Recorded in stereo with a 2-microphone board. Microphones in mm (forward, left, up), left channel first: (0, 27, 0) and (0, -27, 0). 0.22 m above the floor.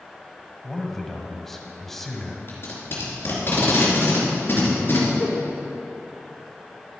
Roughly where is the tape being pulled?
Left.